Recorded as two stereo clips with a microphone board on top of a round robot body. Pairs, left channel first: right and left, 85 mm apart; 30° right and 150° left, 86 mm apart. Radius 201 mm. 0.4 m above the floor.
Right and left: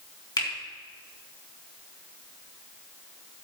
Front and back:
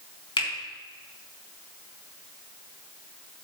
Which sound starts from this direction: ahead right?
A finger snap, at 0.4 s.